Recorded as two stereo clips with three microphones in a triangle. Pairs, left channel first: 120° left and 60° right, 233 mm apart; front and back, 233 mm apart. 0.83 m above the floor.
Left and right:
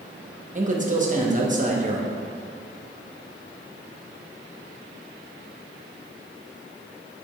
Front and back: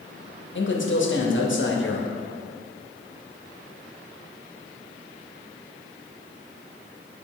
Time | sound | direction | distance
0.6 | a man speaking | 10° right | 1.0 m